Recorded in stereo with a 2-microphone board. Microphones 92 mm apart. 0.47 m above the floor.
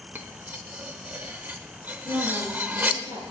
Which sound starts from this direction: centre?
Cutlery clinking, at 0.1 s.